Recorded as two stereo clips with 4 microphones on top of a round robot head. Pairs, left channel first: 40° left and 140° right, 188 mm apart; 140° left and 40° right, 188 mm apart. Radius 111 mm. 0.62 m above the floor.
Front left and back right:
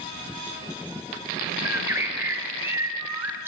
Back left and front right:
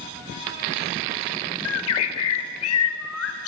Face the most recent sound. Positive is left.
turn(degrees=140)